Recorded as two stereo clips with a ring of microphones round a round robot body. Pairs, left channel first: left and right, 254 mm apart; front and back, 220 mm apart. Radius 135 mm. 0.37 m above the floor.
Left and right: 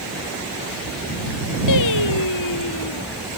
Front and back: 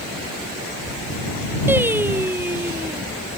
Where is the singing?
100° left.